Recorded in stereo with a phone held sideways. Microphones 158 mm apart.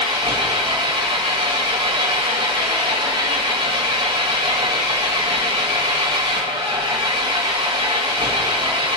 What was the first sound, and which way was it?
An engine running, 30° right (ahead or behind).